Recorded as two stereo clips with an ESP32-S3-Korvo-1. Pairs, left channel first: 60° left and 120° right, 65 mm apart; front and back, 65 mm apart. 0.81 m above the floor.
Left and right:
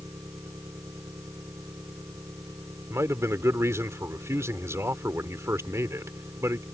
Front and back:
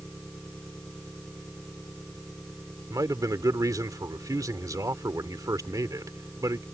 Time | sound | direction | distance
0.0 | an engine running | 80° right | ?
2.9 | a man speaking | 160° right | ?